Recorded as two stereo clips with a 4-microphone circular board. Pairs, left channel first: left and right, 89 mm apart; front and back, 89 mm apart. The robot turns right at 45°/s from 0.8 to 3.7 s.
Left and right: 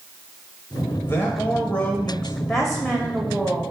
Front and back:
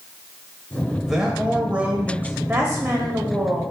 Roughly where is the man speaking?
Left.